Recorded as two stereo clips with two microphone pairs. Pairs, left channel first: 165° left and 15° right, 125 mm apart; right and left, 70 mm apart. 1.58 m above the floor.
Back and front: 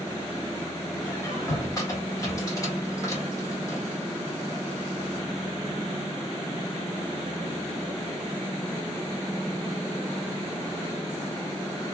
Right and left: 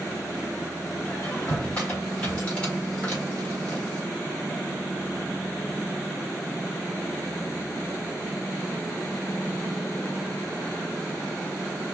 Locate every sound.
1.1 s a squeak: 150° right, 1.4 m